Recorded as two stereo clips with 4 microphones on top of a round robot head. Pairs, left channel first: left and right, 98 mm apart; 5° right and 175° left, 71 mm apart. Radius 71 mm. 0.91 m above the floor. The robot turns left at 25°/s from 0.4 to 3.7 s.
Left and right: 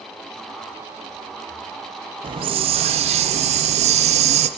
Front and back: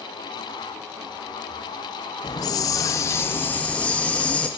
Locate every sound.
2.2 s a hiss: 45° right, 0.5 m; by 4.5 s 80° right, 0.5 m